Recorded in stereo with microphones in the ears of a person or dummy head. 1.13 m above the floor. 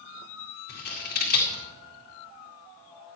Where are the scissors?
55° left (ahead or behind), 2 m.